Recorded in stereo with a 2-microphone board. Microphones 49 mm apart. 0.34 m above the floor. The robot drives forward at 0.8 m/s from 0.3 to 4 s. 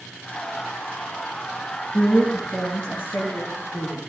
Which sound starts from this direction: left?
A woman speaking, at 1.9 s.